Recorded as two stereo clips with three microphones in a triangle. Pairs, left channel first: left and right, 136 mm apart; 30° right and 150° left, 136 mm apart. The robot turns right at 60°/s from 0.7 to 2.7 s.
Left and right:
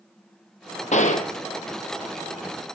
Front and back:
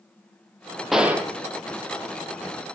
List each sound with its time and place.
0.9 s a gunshot: 60° left, 1.3 m; by 1.3 s 85° left, 1.3 m